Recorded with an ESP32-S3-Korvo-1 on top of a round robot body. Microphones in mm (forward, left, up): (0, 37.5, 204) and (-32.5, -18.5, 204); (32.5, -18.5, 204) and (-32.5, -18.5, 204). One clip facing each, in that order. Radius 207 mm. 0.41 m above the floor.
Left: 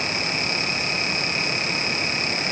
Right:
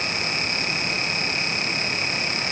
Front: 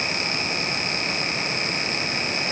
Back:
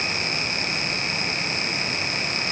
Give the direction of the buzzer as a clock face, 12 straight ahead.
I don't hear a buzzer.